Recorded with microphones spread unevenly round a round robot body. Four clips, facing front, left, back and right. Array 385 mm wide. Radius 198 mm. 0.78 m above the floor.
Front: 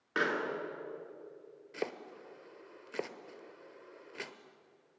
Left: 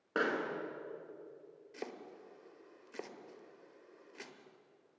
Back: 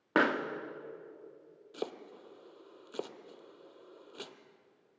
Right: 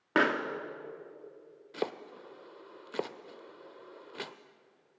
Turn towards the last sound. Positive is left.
turn(degrees=-75)